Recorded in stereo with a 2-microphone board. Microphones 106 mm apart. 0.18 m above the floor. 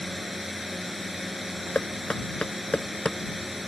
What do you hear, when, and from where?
0.0 s a drone: centre (ahead or behind)
1.8 s knocking: 10° left (ahead or behind)